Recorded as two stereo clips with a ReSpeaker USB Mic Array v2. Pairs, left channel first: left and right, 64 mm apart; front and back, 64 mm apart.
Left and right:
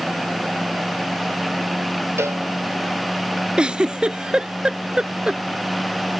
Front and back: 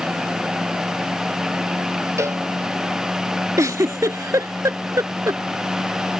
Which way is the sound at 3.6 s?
165° right.